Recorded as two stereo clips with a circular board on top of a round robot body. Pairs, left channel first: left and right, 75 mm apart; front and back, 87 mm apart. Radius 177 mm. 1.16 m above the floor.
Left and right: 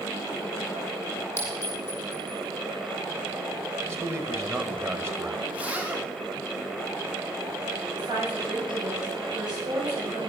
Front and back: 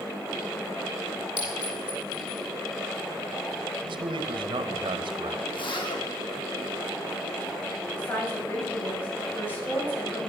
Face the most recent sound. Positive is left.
turn(degrees=-70)